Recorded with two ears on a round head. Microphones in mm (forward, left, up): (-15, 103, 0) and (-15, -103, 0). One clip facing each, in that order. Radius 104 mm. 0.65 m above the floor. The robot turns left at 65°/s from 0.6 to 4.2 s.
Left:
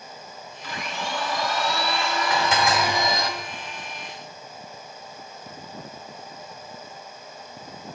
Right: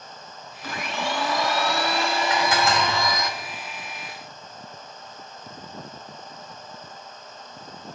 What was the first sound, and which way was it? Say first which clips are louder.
A blender: right 3 dB; 45° right.